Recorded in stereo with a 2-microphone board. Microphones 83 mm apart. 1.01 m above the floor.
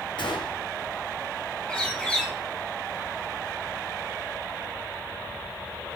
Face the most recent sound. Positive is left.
turn(degrees=15)  # may be behind; listen again after turning